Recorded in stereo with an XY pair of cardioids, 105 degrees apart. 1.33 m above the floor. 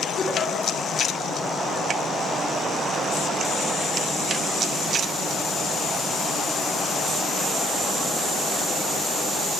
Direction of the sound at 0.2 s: 70° left.